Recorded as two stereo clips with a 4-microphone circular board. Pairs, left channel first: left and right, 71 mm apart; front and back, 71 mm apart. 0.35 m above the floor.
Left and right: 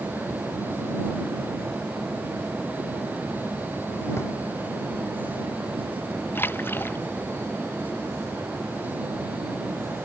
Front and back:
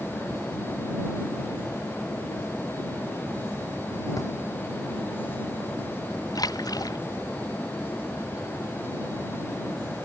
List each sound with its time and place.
4.2 s a drawer: 40° left
6.3 s a splash: 30° left